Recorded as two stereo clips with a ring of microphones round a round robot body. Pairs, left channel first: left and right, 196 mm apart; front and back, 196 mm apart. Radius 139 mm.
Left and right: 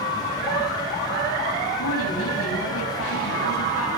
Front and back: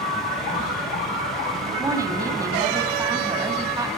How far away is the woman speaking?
About 6 m.